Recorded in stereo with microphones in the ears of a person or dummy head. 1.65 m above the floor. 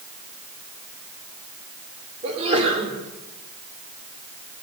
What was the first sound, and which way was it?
A sneeze, 35° right (ahead or behind).